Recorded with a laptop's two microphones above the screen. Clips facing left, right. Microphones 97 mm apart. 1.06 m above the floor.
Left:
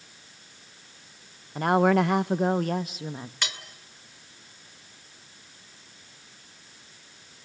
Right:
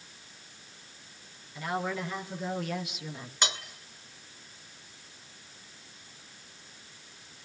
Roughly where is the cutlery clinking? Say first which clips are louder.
Right 5 dB; right.